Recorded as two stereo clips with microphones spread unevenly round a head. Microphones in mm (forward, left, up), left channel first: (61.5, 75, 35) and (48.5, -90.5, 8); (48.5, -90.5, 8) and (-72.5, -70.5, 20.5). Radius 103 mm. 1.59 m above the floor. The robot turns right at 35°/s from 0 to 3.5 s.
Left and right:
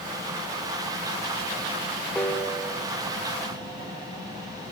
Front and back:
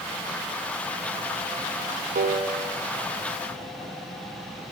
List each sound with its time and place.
2.1 s a piano: 170° left, 1.6 m; by 2.8 s 170° right, 1.6 m